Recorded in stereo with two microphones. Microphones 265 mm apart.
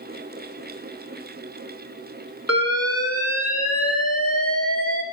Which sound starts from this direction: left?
An alarm, at 2.5 s.